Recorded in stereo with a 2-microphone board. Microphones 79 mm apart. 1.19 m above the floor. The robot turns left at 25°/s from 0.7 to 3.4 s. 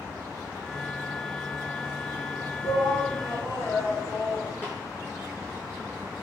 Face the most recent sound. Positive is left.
turn(degrees=30)  # may be behind; listen again after turning